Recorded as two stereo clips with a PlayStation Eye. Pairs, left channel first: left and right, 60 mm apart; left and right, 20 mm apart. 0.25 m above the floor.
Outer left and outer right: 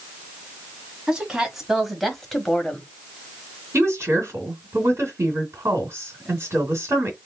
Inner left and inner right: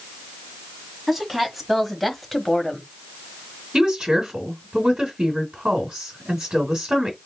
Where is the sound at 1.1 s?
10° right (ahead or behind), 1.5 m; by 2.9 s 15° left (ahead or behind), 1.0 m.